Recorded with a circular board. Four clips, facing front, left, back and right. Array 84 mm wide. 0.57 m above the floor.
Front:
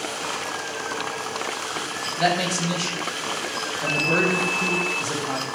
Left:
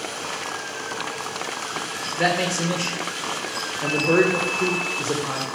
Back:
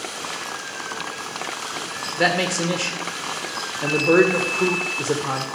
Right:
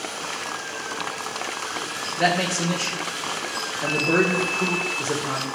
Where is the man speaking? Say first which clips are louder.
Even, back 2 dB; 170° left, 2 m.